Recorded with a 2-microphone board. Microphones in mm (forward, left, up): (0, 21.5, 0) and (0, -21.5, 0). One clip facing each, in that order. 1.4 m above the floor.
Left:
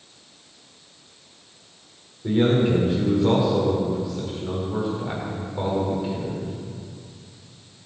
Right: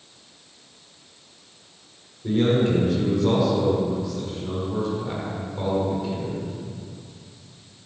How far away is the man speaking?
About 4 m.